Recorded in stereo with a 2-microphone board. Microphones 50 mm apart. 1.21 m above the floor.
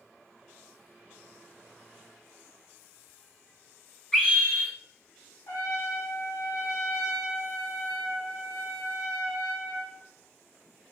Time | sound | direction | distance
4.1 | a scream | 15° left (ahead or behind) | 1.4 m
5.5 | a trumpet | 75° left (ahead or behind) | 0.8 m